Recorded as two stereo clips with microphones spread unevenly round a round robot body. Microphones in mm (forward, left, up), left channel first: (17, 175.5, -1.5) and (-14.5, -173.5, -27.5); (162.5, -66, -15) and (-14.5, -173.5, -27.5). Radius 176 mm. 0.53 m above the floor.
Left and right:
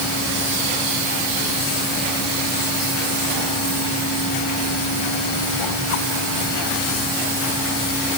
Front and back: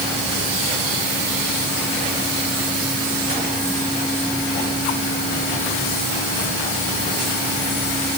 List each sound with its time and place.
Only background noise.